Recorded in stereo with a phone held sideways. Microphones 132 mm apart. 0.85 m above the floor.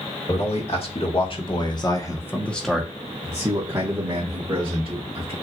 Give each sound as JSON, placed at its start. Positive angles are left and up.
{"t": 0.3, "sound": "a man speaking", "side_deg": 50, "distance_m": 1.8}